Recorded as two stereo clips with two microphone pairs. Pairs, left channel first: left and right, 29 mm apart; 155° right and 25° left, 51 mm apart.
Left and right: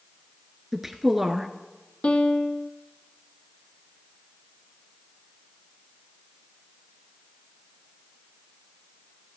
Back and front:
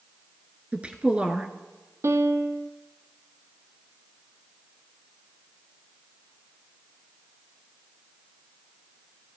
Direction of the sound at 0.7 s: 20° right.